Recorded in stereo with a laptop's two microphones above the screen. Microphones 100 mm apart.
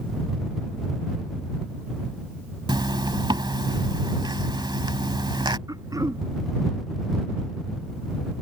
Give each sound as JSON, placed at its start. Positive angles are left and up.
{"t": 2.7, "sound": "a zipper", "side_deg": -50}
{"t": 5.7, "sound": "throat clearing", "side_deg": -35}